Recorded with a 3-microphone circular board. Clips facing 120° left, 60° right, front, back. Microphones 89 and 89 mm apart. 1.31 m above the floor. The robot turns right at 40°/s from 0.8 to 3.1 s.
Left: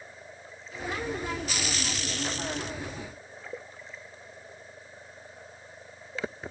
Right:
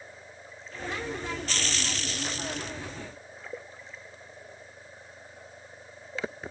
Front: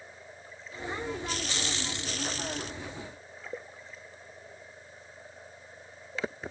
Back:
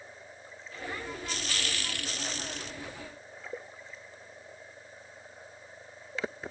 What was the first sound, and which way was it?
Only background noise.